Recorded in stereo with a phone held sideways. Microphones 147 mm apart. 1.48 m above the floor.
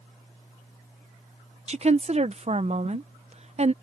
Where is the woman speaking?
45° right (ahead or behind).